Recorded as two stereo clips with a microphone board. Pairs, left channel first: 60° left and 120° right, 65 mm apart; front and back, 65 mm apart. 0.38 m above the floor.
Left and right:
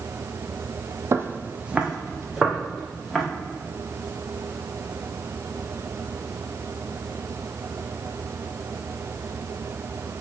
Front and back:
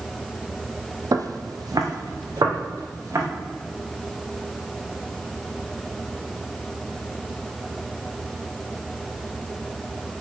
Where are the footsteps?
160° right, 0.7 m; by 3.2 s 145° left, 2.5 m.